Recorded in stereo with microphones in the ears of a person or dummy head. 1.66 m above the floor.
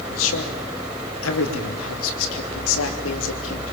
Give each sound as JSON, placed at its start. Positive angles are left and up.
{"t": 0.1, "sound": "a man speaking", "side_deg": 80, "distance_m": 3.0}